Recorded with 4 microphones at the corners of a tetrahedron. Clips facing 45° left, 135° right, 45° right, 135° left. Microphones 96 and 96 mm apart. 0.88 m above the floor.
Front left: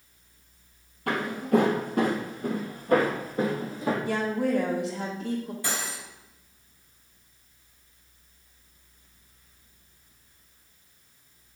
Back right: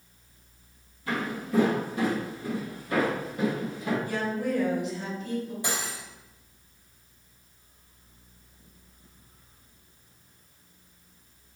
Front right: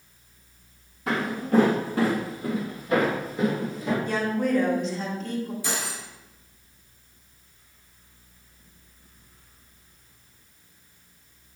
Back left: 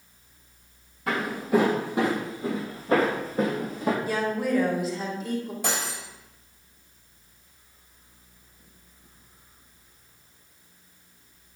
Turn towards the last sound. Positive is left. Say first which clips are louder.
# even, back left 1 dB
turn(degrees=155)